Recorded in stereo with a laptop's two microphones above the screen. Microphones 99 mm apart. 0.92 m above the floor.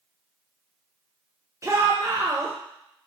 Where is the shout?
30° right (ahead or behind), 0.7 m.